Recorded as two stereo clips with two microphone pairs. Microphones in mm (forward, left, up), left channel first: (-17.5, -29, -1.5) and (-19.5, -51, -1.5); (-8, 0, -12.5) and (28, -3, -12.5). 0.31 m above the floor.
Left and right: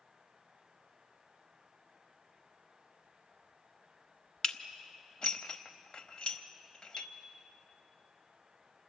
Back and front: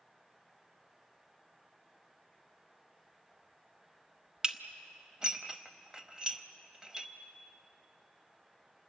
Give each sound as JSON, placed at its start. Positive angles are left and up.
{"t": 4.4, "sound": "dishes clattering", "azimuth_deg": 55, "distance_m": 0.9}
{"t": 6.9, "sound": "a chime", "azimuth_deg": -75, "distance_m": 5.5}